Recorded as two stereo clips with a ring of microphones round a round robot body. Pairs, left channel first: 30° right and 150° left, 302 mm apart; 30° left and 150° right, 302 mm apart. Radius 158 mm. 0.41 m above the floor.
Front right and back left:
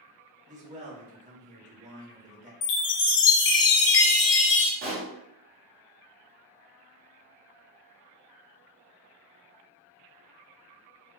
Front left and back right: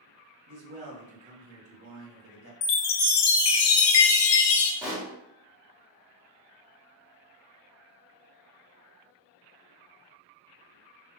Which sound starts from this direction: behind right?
A man speaking, at 0.5 s.